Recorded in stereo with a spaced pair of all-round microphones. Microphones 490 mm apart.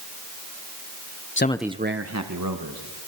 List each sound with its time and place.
1.4 s a man speaking: 25° left (ahead or behind), 0.7 m; by 3.0 s 45° right (ahead or behind), 2.5 m